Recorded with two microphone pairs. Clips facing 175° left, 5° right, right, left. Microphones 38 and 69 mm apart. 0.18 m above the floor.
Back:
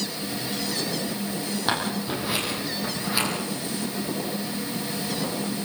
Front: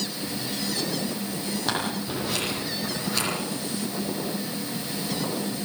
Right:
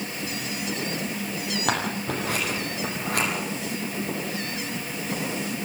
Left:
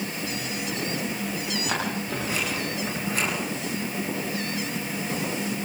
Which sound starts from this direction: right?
Scissors, at 1.7 s.